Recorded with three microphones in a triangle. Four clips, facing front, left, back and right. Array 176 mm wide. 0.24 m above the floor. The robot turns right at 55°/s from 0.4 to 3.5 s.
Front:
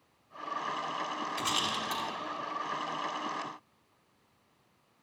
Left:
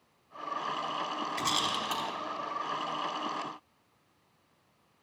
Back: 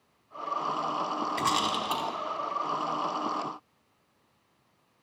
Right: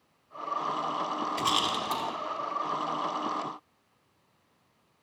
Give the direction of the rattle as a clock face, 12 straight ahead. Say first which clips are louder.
Right 3 dB, back 7 dB; 6 o'clock.